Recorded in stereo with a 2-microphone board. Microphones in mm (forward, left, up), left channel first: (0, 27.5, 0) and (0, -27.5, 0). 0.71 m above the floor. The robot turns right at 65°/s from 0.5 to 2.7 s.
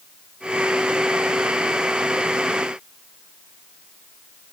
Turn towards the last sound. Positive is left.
No sound to turn to.